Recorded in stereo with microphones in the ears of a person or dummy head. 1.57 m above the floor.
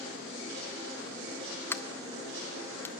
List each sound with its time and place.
1.7 s a sliding door: 15° left (ahead or behind), 0.5 m